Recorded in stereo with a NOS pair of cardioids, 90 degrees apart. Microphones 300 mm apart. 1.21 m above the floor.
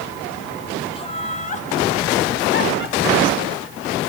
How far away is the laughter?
About 3.5 m.